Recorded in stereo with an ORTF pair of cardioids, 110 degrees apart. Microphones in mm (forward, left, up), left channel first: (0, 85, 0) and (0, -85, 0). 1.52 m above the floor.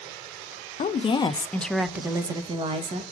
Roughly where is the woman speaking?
Ahead left.